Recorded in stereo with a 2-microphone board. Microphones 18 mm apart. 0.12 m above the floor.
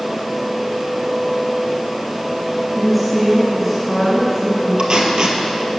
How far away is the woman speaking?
About 1.8 m.